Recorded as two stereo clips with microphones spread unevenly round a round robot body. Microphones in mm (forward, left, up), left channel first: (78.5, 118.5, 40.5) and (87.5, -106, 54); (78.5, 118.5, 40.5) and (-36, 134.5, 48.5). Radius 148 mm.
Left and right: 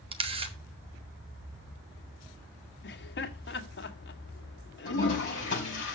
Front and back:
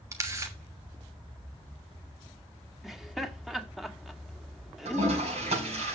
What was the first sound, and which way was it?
A camera shutter, 140° right.